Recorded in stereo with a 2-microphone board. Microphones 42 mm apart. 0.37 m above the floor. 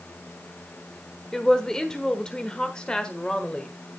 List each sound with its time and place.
1.3 s a woman speaking: 15° left (ahead or behind), 1.2 m; by 3.7 s 20° left (ahead or behind), 1.5 m